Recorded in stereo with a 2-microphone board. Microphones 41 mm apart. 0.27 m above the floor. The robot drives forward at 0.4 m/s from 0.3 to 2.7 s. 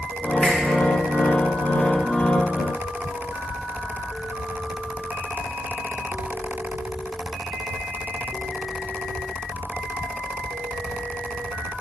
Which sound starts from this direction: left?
A finger snap, at 0.4 s.